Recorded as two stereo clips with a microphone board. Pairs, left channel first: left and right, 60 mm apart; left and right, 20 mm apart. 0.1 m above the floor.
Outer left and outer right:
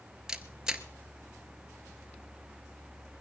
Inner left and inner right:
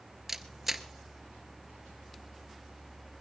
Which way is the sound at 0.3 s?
10° right (ahead or behind).